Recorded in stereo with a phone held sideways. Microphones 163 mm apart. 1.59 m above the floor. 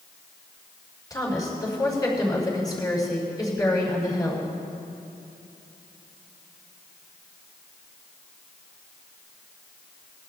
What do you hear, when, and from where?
1.1 s a woman speaking: 25° left (ahead or behind), 5 m